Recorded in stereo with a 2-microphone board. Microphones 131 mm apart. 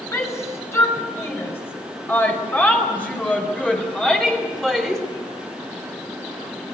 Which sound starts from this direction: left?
A shout, at 0.1 s.